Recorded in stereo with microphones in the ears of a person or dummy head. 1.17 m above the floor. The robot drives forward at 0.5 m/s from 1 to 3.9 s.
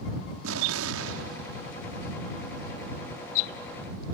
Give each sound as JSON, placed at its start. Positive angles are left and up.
{"t": 0.4, "sound": "an explosion", "side_deg": -75}